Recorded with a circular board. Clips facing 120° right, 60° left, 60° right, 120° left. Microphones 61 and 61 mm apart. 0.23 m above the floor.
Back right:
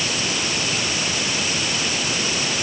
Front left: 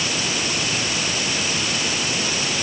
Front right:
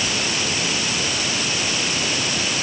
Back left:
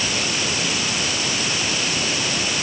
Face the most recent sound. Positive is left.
No sound to turn to.